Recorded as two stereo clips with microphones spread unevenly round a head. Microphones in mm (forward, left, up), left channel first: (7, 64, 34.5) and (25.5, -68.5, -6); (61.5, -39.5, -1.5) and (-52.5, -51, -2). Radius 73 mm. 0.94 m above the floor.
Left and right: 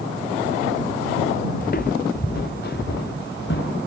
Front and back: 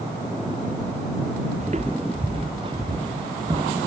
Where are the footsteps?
135° left; by 3.8 s 115° left.